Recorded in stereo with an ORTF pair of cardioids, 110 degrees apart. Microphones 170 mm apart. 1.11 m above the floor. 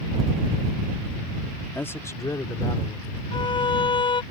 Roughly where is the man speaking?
Ahead.